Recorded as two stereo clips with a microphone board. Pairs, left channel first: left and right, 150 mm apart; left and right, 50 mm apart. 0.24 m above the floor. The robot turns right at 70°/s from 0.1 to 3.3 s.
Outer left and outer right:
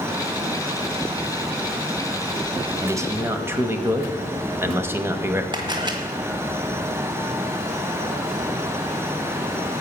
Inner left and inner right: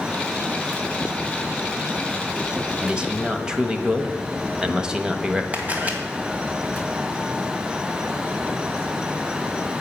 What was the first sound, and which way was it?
A man speaking, 20° right (ahead or behind).